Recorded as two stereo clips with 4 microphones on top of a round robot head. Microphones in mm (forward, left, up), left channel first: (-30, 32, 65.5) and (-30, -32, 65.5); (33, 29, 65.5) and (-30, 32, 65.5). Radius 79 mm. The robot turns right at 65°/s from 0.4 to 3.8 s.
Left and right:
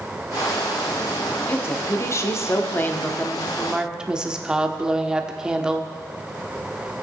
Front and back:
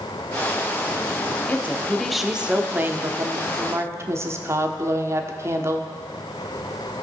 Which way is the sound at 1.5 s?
45° left.